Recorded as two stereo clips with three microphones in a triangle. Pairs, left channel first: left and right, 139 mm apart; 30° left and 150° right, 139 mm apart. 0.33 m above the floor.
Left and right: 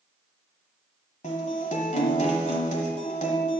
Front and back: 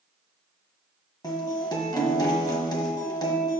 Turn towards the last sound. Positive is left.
turn(degrees=85)